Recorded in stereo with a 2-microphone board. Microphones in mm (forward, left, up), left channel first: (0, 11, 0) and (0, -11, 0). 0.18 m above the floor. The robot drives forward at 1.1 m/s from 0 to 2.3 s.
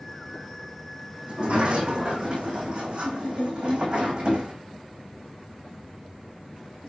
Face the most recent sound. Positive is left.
turn(degrees=-35)  # may be behind; listen again after turning